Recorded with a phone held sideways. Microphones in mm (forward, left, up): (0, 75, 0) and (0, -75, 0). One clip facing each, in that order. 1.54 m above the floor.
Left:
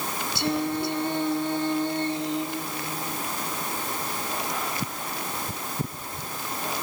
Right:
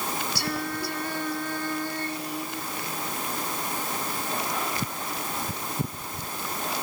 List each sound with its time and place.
0.3 s singing: 25° left (ahead or behind)